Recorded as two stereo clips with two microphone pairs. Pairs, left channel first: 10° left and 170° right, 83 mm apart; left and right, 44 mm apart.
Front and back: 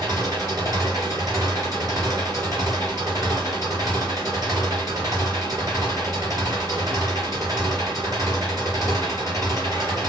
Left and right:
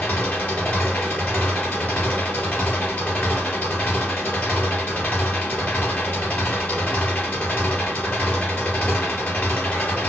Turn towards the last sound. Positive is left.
turn(degrees=145)